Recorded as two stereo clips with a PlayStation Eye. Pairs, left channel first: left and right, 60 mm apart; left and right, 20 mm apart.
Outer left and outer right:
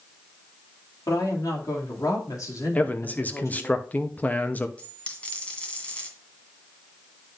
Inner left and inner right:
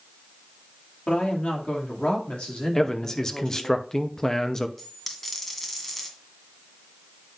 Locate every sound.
1.1 s a woman speaking: 80° left, 2.5 m; by 3.8 s 45° left (ahead or behind), 3 m
2.8 s a man speaking: 30° left (ahead or behind), 0.7 m
4.8 s a dropped coin: 20° left (ahead or behind), 1.8 m